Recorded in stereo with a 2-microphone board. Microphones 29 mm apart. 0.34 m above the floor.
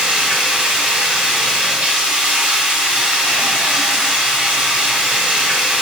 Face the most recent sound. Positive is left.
turn(degrees=-45)  # may be behind; listen again after turning